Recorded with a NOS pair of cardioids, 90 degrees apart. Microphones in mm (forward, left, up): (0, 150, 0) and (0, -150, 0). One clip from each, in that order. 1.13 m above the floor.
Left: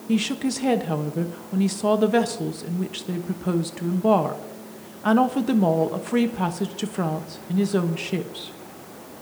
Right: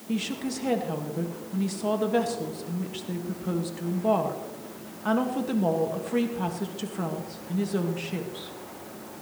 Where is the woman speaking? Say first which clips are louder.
Left 6 dB; 35° left, 1.4 m.